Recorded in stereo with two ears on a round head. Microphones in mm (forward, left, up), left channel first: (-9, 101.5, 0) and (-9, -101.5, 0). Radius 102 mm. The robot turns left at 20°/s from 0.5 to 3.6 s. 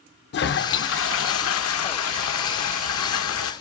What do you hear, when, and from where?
0.3 s a toilet flushing: 125° left, 0.7 m; by 3.5 s 65° left, 0.7 m